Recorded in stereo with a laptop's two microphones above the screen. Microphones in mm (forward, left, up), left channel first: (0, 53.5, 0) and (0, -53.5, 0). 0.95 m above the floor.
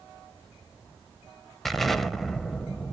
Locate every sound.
1.6 s an explosion: centre (ahead or behind), 0.8 m